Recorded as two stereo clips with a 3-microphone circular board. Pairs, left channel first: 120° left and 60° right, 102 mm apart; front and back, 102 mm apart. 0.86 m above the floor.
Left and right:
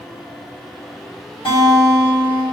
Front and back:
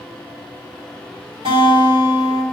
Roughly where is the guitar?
Behind left.